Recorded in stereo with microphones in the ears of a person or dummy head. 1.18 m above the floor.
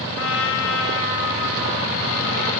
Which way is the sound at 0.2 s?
60° left (ahead or behind).